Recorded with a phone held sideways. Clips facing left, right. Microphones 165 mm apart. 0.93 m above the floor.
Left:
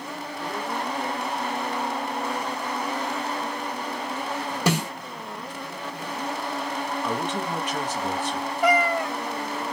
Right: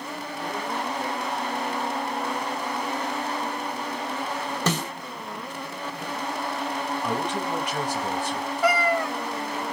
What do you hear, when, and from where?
4.7 s a snare drum: 10° left (ahead or behind), 0.8 m
7.0 s a man speaking: 10° right (ahead or behind), 1.5 m
8.6 s a cat meowing: 20° left (ahead or behind), 0.7 m